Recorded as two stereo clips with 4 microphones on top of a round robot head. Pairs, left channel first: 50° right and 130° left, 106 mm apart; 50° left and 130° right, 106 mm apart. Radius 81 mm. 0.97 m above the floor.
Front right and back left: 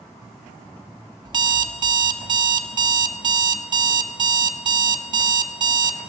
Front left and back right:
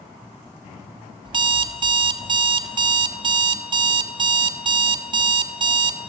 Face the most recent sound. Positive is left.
turn(degrees=180)